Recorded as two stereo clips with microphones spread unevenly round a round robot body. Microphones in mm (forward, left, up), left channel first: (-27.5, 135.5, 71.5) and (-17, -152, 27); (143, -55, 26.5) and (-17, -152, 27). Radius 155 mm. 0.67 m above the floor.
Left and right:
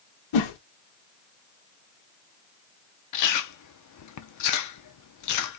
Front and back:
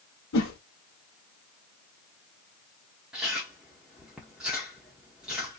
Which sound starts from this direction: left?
A whoosh, at 0.3 s.